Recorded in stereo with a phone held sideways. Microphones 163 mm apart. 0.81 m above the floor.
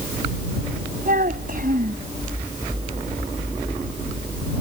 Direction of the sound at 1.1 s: 55° right (ahead or behind).